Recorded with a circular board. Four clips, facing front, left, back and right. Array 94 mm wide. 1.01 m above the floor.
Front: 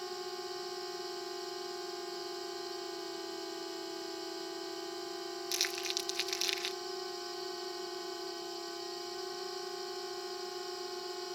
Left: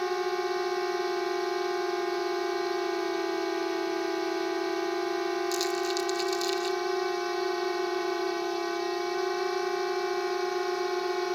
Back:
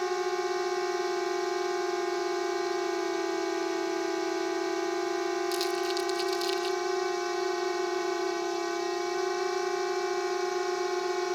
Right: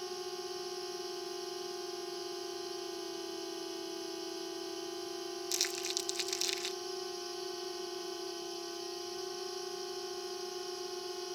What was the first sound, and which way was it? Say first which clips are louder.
A drone: left 13 dB, back 12 dB; 130° left.